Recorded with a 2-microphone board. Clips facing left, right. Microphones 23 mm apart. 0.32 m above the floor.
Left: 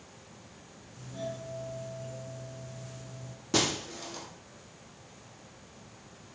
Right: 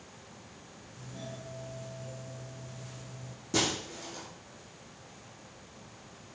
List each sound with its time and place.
1.0 s a doorbell: 15° left (ahead or behind), 4.5 m
3.5 s breaking glass: 35° left (ahead or behind), 5.5 m